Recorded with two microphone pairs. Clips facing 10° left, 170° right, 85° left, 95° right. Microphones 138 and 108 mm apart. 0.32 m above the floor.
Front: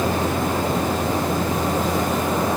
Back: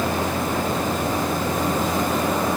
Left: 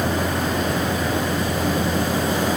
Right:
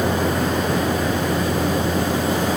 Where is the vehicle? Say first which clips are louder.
Front 2 dB, right 2 dB; 60° right.